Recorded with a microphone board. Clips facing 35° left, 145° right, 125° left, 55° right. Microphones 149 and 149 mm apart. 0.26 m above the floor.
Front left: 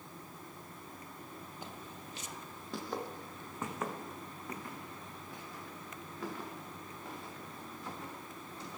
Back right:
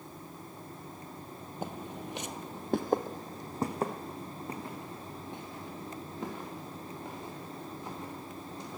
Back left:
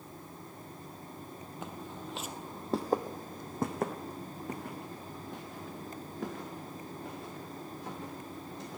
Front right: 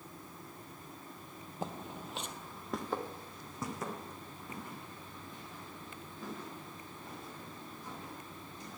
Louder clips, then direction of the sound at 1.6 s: Back right 13 dB, front right 2 dB; 110° right.